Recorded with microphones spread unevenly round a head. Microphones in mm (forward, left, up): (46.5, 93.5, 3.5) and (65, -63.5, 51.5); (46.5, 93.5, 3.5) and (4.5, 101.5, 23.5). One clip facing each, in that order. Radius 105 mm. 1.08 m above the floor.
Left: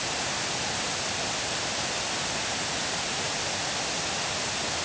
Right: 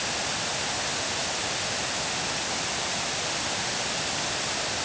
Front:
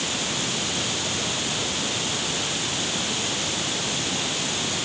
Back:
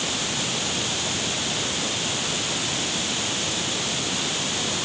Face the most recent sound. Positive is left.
No sound to turn to.